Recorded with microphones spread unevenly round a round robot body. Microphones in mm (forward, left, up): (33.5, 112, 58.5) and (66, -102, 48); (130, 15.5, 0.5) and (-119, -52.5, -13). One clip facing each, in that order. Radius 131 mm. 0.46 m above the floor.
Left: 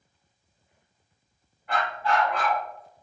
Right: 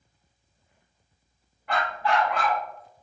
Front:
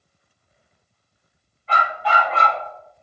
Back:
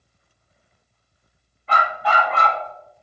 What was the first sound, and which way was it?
A dog barking, 120° right.